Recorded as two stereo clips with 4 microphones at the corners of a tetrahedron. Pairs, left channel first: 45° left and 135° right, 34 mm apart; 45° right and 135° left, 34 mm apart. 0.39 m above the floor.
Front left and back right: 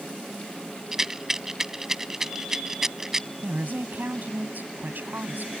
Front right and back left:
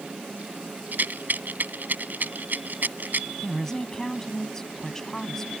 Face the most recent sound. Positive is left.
turn(degrees=-120)